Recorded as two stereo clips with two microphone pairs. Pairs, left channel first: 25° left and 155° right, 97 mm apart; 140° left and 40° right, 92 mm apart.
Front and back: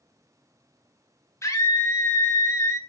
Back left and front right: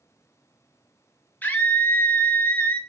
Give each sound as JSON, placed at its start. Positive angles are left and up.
{"t": 1.4, "sound": "a scream", "azimuth_deg": 75, "distance_m": 1.4}